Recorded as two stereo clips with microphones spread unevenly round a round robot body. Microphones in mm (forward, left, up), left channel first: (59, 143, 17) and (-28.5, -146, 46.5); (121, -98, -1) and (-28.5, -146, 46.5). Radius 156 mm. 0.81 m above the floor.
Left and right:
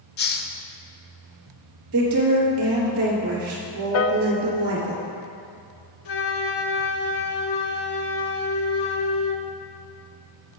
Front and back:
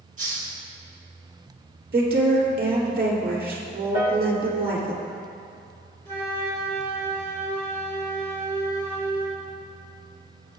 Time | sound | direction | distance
0.2 | a hiss | 130° left | 0.6 m
1.9 | a woman speaking | 140° right | 3 m
3.9 | a piano | 115° left | 0.7 m
6.0 | a flute | 105° left | 0.8 m